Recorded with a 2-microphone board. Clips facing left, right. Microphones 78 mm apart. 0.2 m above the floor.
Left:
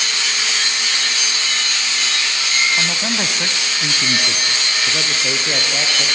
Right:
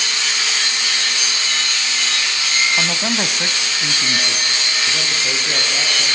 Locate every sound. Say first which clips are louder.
2.8 s a man speaking: right 1 dB; 15° right (ahead or behind), 1.2 m; by 6.1 s 15° left (ahead or behind), 4 m